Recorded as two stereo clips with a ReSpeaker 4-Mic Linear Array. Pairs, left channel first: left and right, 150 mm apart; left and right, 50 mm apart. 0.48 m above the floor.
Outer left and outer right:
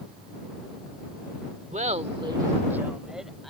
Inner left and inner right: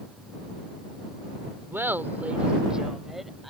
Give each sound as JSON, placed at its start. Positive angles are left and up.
{"t": 1.7, "sound": "laughter", "side_deg": -50}